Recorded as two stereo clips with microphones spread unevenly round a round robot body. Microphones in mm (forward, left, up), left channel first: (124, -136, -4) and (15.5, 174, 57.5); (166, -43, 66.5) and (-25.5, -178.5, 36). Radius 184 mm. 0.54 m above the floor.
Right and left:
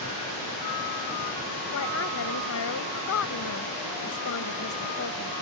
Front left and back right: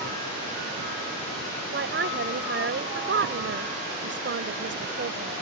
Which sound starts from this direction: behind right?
A woman speaking, at 1.7 s.